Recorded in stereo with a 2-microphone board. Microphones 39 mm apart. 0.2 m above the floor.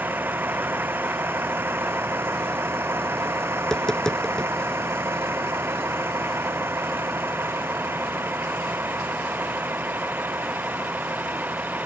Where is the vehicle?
55° right (ahead or behind); by 11.9 s 45° right (ahead or behind).